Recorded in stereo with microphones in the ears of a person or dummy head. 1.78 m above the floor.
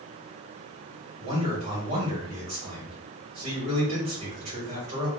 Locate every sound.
1.2 s a man speaking: 45° right (ahead or behind), 2.5 m